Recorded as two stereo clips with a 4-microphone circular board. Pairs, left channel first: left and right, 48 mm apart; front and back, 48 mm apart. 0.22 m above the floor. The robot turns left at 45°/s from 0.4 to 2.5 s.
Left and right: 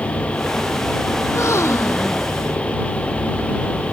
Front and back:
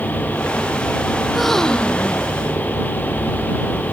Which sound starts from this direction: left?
A gasp, at 1.2 s.